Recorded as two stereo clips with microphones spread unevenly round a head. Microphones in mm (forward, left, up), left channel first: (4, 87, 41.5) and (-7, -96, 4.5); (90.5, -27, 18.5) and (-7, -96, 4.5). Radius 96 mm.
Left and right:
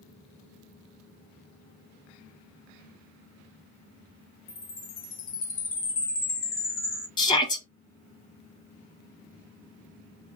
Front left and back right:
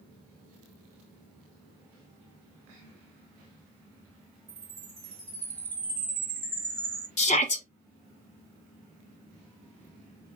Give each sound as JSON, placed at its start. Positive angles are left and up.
{"t": 4.5, "sound": "a chime", "azimuth_deg": 130, "distance_m": 1.5}
{"t": 7.2, "sound": "a shout", "azimuth_deg": 15, "distance_m": 1.3}